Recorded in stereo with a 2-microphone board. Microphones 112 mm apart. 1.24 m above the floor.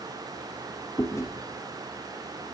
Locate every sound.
1.0 s chewing: 25° left (ahead or behind), 0.7 m